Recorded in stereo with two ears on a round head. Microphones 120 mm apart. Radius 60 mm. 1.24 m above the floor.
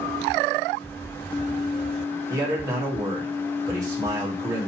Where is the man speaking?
25° right (ahead or behind), 1.8 m.